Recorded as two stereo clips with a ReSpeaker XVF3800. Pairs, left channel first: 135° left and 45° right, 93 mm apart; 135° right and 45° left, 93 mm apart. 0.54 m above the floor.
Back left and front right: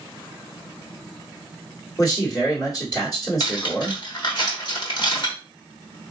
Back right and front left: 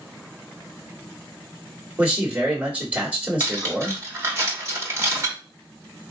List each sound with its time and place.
2.0 s a man speaking: 110° left, 1.5 m
3.4 s cutlery clinking: 105° left, 1.0 m